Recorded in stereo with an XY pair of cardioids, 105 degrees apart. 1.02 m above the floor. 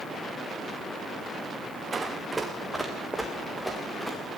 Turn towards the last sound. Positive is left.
turn(degrees=10)